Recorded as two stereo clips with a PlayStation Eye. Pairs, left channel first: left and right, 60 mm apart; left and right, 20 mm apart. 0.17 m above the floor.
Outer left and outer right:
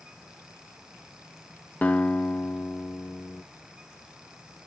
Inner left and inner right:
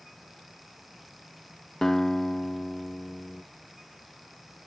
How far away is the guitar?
About 0.9 m.